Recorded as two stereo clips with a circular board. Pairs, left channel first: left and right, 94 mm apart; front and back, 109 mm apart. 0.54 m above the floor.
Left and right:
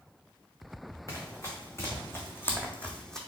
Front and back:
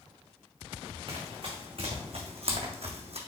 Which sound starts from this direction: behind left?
Running footsteps, at 1.1 s.